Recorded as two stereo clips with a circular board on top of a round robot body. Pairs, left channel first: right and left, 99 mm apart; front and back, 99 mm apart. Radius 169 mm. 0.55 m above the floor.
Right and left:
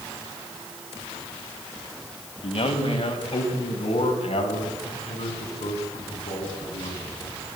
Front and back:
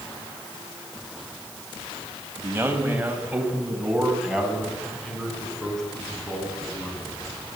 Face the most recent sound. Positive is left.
turn(degrees=-80)